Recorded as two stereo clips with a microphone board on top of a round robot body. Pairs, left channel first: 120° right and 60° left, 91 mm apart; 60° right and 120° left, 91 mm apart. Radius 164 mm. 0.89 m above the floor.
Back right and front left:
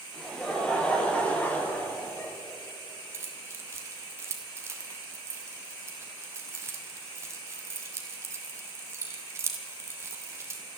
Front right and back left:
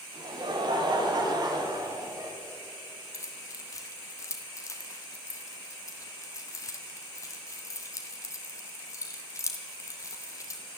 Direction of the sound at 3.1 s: Straight ahead.